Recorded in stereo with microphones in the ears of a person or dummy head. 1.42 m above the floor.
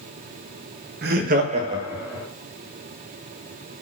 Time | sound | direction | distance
1.0 | laughter | 45° right (ahead or behind) | 0.5 m